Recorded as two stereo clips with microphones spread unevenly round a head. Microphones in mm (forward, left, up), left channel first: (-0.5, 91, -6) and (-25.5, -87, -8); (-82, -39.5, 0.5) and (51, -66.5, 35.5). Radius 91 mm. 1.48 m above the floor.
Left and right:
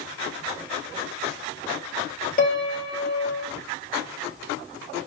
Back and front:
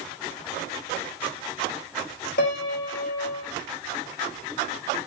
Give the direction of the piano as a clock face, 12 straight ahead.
8 o'clock.